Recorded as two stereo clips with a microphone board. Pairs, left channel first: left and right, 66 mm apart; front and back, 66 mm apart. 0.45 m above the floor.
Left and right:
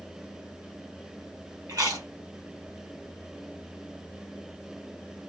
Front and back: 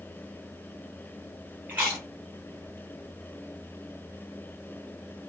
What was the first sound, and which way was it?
Chewing, 115° right.